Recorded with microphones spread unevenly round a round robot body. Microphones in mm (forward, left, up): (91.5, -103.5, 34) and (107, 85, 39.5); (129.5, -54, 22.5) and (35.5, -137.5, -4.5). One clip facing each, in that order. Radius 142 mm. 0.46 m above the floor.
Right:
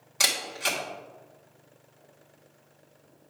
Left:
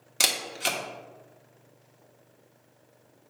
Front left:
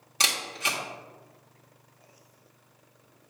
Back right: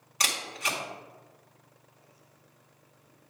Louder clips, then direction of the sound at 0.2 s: Left 1 dB, front left 1 dB; 100° left.